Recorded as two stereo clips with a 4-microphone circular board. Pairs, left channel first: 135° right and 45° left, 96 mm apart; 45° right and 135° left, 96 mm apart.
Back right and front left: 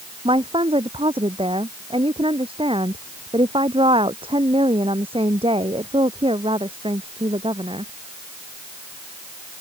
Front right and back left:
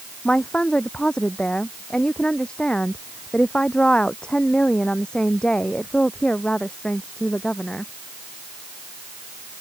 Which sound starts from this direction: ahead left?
A woman speaking, at 0.2 s.